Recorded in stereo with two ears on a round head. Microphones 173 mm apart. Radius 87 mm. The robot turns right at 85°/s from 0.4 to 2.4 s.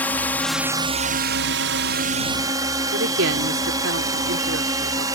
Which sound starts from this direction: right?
A woman speaking, at 2.9 s.